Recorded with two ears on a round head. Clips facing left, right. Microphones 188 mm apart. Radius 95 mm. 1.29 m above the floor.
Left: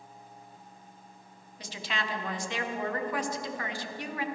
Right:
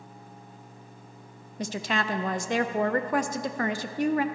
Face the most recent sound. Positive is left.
turn(degrees=-40)  # may be behind; listen again after turning